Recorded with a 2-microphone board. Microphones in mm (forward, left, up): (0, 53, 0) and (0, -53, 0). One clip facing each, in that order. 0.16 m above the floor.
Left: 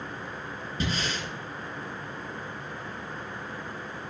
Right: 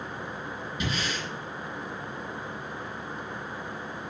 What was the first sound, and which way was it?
Breathing, 35° left (ahead or behind).